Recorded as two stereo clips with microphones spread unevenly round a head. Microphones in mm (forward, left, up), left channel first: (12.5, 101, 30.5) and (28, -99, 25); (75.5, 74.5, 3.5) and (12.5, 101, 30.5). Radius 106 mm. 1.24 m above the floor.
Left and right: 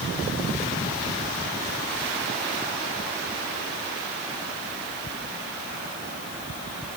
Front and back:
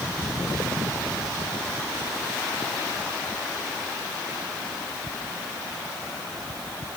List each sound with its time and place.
Only background noise.